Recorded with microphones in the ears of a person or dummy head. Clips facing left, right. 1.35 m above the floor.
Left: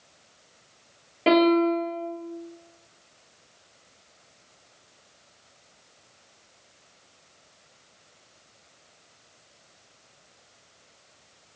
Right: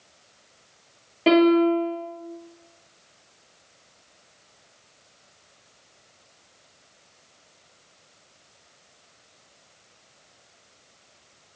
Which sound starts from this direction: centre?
A piano, at 1.3 s.